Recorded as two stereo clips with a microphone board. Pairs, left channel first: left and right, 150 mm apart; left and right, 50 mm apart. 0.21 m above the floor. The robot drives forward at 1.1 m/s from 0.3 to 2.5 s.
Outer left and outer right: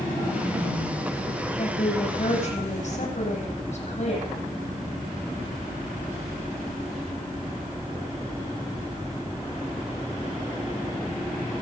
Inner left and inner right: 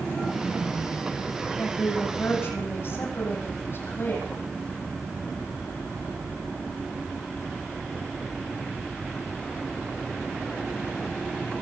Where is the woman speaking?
50° left (ahead or behind), 9 m; by 4.3 s 55° left (ahead or behind), 8.5 m.